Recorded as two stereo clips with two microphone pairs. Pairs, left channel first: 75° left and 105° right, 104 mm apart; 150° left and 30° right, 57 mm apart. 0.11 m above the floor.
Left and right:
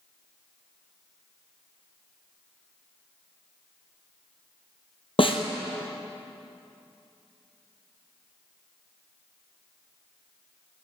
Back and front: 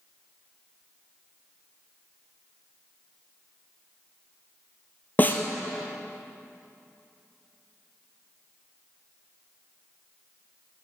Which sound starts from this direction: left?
A snare drum, at 5.2 s.